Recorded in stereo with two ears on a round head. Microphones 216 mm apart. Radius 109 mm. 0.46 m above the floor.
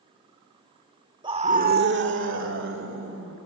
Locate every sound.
1.2 s a scream: 20° right (ahead or behind), 1.3 m; by 3.4 s 50° right (ahead or behind), 3 m